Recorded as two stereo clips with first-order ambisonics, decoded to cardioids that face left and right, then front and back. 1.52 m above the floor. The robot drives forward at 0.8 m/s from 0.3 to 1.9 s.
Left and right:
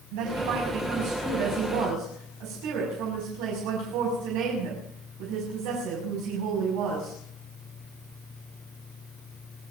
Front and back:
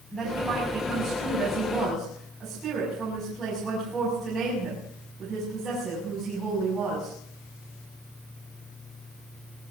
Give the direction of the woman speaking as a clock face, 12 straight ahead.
3 o'clock.